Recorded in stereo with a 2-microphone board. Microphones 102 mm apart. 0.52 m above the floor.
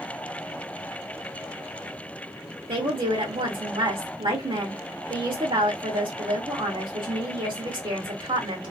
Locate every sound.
2.7 s a woman speaking: 55° right (ahead or behind), 1.6 m